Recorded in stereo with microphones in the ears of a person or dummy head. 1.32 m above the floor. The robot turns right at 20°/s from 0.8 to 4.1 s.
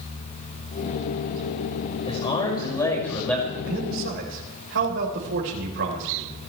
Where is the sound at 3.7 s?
80° right, 4.5 m; by 6.3 s 70° right (ahead or behind), 4.5 m.